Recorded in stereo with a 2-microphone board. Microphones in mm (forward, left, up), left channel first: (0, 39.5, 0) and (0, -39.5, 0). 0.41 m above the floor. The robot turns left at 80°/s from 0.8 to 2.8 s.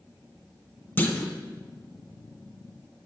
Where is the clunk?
25° left (ahead or behind), 0.6 m; by 1.3 s 15° left (ahead or behind), 0.6 m.